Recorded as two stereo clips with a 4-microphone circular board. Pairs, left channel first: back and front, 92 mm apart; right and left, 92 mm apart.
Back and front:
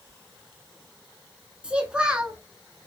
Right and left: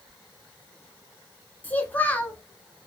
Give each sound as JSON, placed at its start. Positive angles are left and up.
{"t": 1.6, "sound": "a child speaking", "azimuth_deg": -60, "distance_m": 0.8}